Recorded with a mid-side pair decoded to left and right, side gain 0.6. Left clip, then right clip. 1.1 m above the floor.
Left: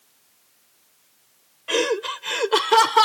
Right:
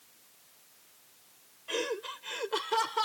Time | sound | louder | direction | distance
1.7 | laughter | left 12 dB | 55° left | ?